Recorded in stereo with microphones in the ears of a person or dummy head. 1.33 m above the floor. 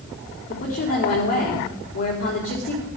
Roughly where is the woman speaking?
Left.